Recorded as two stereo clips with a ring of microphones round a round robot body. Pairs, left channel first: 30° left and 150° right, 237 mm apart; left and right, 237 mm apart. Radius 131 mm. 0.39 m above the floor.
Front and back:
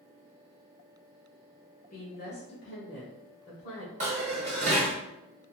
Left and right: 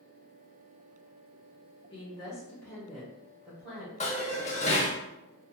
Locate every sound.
1.9 s a woman speaking: 40° left, 1.1 m; by 3.9 s 5° right, 2 m
4.0 s dishes clattering: 150° left, 1.0 m